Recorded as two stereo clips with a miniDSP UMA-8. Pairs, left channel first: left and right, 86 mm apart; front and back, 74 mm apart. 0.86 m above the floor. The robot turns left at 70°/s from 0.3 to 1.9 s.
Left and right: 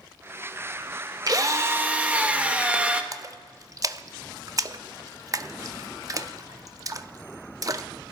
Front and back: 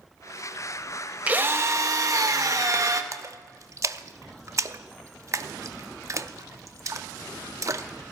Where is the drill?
115° right, 1.1 m; by 3.0 s 160° right, 1.1 m.